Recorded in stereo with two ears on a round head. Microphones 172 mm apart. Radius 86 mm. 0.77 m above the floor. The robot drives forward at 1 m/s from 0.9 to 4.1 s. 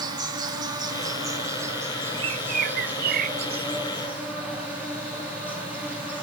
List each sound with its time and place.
0.0 s an insect: 20° right (ahead or behind), 1.6 m; by 6.2 s 5° right (ahead or behind), 4.5 m
2.1 s a bird: 25° right (ahead or behind), 0.9 m; by 3.9 s 20° right (ahead or behind), 1.1 m